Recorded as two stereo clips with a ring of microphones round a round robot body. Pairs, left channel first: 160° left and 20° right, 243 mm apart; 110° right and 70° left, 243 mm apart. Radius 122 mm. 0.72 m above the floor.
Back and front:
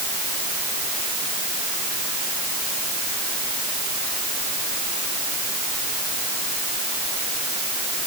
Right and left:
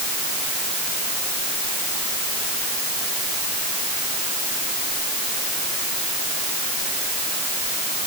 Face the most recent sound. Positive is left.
No sound to turn to.